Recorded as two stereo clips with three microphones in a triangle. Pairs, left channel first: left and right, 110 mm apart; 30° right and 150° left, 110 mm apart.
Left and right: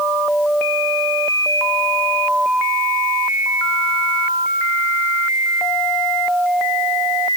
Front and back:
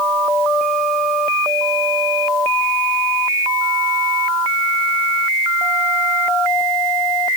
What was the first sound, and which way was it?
Only background noise.